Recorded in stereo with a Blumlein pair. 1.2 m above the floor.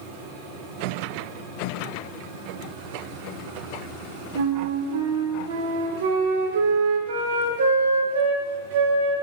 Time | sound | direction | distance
4.3 | a flute | 60° right | 0.6 m